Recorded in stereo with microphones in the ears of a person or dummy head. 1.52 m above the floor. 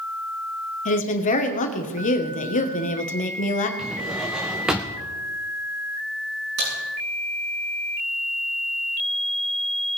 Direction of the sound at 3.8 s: 10° right (ahead or behind).